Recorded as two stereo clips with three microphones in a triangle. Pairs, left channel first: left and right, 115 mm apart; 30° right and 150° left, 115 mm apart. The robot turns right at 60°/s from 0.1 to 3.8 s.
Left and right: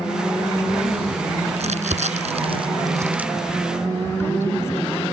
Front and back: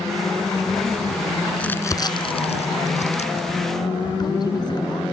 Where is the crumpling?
110° right; by 5.0 s 20° left.